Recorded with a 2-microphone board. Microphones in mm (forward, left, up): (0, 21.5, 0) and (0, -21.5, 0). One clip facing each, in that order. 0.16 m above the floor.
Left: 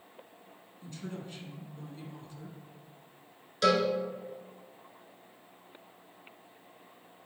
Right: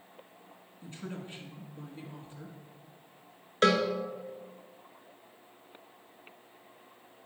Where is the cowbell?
45° right (ahead or behind), 0.9 m.